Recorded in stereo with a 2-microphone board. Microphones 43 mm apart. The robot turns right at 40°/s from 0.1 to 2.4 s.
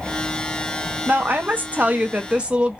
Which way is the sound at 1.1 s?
85° right.